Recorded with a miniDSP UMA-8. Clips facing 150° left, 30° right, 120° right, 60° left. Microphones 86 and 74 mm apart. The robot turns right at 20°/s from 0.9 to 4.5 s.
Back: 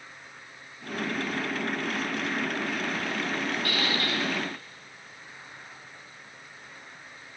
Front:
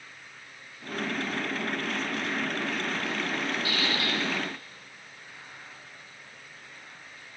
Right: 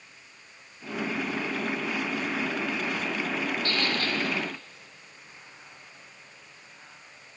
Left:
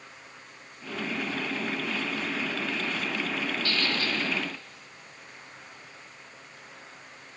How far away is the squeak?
About 5 m.